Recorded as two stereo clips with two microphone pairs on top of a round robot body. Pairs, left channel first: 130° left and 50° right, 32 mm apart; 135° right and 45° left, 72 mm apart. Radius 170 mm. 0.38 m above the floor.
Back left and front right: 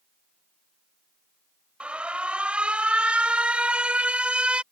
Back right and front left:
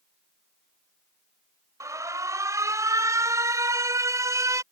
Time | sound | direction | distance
1.8 | an alarm | straight ahead | ?